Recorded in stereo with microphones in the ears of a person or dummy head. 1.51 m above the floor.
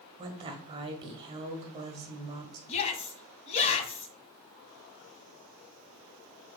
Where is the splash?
No splash in this recording.